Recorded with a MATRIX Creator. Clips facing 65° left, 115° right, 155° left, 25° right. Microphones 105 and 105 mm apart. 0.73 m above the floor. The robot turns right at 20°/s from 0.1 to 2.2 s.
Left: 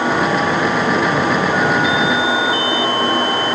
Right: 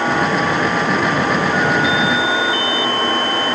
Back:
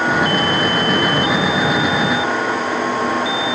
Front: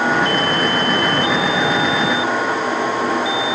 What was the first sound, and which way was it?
Only background noise.